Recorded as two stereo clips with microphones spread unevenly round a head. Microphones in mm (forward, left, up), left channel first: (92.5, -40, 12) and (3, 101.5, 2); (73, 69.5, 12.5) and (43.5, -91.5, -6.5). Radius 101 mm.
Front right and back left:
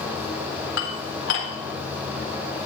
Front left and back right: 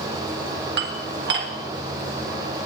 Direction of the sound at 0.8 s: 85° right.